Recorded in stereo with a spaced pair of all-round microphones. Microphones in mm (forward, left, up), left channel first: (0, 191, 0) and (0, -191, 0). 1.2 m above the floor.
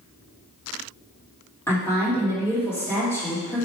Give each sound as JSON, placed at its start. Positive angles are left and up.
{"t": 1.7, "sound": "a woman speaking", "side_deg": 5, "distance_m": 1.6}